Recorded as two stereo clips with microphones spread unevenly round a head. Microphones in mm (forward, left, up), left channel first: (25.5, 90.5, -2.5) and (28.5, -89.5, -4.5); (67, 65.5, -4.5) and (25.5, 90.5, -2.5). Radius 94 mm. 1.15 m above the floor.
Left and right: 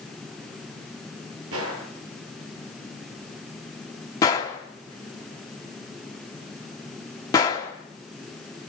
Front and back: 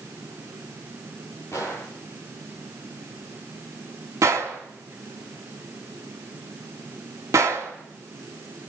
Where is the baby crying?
No baby crying in this recording.